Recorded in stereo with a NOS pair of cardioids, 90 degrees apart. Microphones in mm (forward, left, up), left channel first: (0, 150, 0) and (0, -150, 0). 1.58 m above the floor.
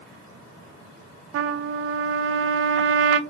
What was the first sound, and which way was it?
A trumpet, 45° right.